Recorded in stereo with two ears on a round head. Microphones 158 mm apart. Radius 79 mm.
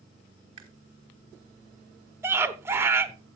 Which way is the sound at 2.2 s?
15° right (ahead or behind).